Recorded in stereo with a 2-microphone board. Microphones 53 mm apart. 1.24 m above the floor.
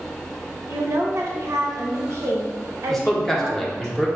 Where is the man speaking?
5° left (ahead or behind), 1.0 m.